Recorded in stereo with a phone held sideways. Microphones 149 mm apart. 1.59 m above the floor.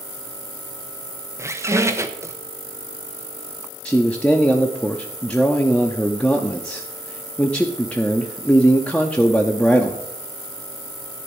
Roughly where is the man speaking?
Centre.